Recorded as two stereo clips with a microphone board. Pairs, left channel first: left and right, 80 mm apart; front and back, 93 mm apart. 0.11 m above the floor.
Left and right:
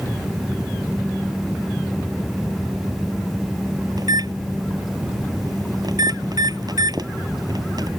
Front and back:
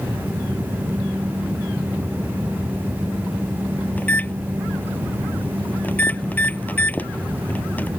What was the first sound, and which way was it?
A microwave, 70° right.